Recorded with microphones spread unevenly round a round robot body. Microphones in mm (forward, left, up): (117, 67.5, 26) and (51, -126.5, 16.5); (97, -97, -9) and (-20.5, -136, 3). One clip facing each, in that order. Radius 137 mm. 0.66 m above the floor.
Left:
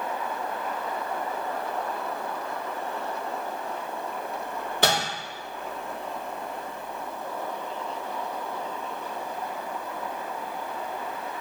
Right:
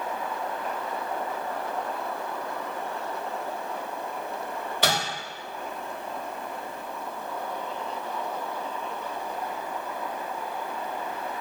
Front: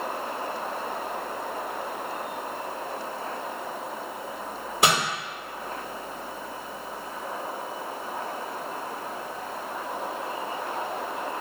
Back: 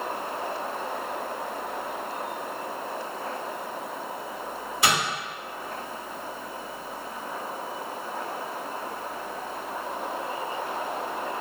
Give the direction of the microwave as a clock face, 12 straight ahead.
11 o'clock.